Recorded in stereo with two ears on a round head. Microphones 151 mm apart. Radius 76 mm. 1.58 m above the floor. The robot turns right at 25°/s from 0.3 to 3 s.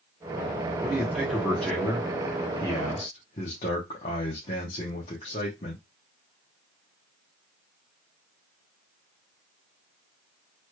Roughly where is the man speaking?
Ahead.